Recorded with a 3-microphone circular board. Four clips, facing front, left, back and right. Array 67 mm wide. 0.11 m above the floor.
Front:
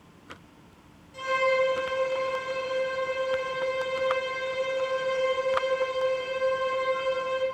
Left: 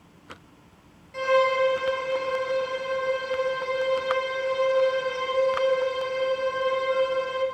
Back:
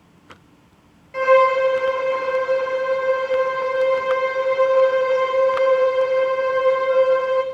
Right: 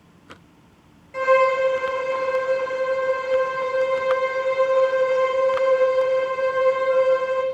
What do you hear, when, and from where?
1.1 s a violin: 155° right, 3 m